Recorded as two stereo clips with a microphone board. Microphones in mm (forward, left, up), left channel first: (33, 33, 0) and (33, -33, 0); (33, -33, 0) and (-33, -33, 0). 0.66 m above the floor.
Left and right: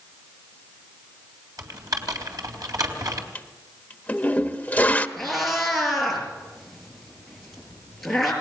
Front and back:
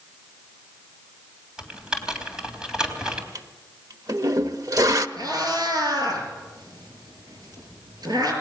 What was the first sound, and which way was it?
Typing on a keyboard, 100° right.